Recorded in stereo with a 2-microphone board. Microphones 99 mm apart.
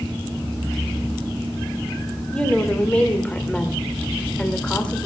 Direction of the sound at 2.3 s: 10° left (ahead or behind).